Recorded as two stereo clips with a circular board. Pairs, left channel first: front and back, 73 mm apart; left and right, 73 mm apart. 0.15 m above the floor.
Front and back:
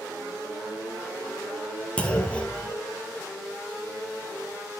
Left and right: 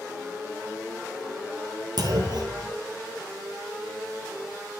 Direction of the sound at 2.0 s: 75° right.